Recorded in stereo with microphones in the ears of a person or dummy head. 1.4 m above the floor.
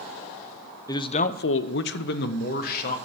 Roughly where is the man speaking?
Centre.